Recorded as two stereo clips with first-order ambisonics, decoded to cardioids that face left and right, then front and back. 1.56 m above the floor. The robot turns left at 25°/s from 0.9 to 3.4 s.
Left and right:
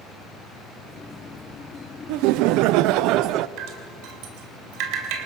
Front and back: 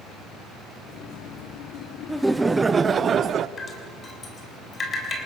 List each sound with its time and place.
2.1 s laughter: 90° right, 0.6 m; by 3.5 s 125° right, 0.6 m
3.6 s dripping: 70° right, 3 m